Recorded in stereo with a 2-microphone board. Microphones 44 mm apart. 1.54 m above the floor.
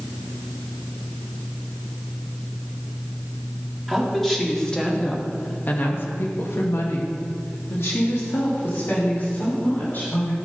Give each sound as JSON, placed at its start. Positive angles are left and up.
{"t": 3.9, "sound": "a woman speaking", "side_deg": 5, "distance_m": 3.5}